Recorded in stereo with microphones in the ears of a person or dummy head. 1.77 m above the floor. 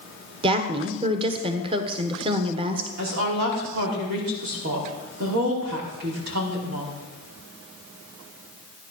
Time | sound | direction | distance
0.4 | a woman speaking | 30° right (ahead or behind) | 1.5 m
3.0 | a woman speaking | 60° right (ahead or behind) | 4.5 m